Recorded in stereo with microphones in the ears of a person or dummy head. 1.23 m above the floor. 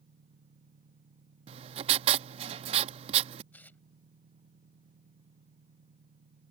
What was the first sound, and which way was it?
An engine running, 25° right (ahead or behind).